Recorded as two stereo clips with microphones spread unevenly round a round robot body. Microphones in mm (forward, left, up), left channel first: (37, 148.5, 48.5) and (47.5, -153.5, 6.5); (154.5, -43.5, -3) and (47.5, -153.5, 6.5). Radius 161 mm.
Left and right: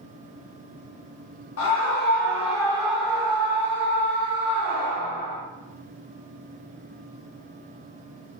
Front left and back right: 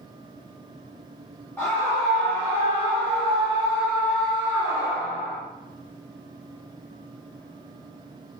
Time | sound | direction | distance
1.6 | a scream | 115° left | 1.0 m